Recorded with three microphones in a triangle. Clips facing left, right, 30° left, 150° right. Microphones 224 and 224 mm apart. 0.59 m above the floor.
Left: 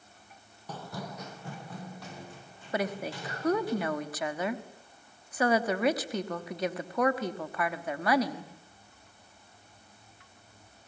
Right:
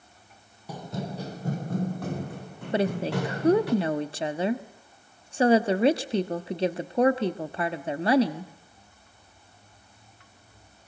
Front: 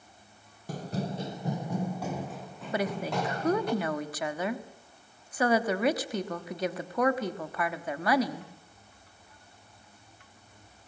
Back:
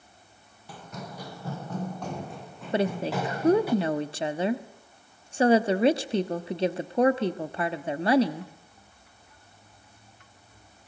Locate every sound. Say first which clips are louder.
0.7 s running footsteps: right 6 dB, front 8 dB; 15° right, 1.1 m; by 3.7 s 65° right, 3.5 m
2.7 s a woman speaking: right 7 dB, back 4 dB; 120° right, 1.2 m